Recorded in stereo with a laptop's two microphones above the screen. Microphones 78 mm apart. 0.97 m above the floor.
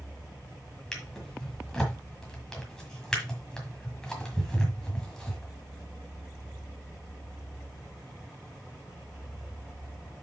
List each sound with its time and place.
0.9 s a drawer: 10° left (ahead or behind), 1.5 m